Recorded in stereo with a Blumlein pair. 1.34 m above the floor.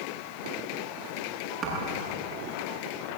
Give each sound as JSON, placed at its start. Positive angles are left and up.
{"t": 1.6, "sound": "a thud", "azimuth_deg": -30, "distance_m": 8.0}